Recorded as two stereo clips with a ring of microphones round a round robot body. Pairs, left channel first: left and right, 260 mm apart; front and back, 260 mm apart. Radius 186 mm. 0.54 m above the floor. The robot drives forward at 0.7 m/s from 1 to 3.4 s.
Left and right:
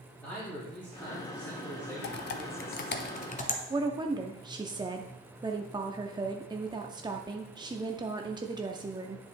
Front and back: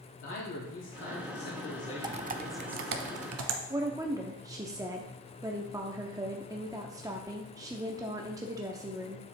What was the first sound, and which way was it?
A man speaking, 10° left.